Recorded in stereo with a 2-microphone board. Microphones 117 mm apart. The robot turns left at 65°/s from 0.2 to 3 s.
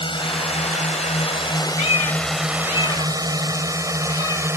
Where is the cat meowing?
60° left (ahead or behind); by 4.5 s 40° left (ahead or behind).